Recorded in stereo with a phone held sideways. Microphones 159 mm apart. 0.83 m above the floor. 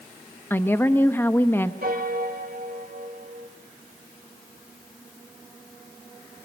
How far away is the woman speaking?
About 0.9 m.